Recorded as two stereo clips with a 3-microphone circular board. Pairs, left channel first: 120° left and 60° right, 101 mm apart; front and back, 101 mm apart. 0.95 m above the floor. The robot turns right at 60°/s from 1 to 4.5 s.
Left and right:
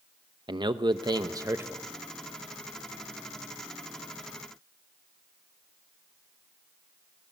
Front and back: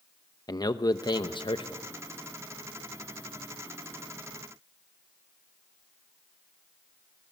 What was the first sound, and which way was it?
A man speaking, 35° right.